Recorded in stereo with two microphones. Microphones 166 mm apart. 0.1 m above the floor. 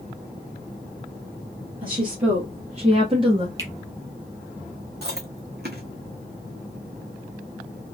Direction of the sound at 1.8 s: 55° right (ahead or behind).